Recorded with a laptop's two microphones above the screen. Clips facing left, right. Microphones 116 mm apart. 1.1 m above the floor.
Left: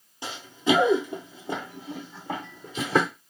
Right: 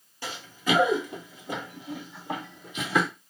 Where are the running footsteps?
20° left (ahead or behind), 1.1 m; by 3.1 s 35° left (ahead or behind), 1.9 m.